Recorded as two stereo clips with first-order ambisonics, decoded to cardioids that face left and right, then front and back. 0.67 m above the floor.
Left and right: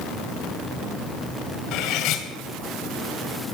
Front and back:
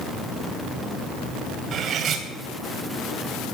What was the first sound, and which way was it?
Cutlery clinking, 120° left.